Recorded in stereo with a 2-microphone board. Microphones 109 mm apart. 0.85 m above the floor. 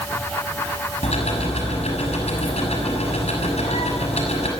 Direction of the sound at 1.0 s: 85° left.